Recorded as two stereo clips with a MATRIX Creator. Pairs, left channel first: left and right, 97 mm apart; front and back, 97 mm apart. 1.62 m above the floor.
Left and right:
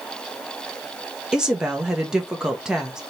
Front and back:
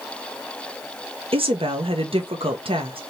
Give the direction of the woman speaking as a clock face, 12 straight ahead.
6 o'clock.